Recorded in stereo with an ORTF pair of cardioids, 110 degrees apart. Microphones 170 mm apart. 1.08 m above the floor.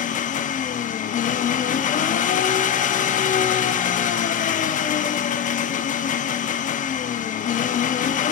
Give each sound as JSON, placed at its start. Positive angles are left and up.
{"t": 0.0, "sound": "an engine running", "azimuth_deg": 50, "distance_m": 1.1}